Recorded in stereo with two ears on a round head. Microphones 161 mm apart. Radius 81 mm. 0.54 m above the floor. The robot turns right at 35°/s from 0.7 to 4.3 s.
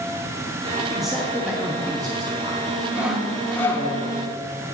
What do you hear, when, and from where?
0.9 s a man speaking: centre (ahead or behind), 0.7 m; by 3.9 s 35° right (ahead or behind), 0.7 m
2.9 s sawing: 10° right, 0.7 m; by 3.9 s 25° left, 0.7 m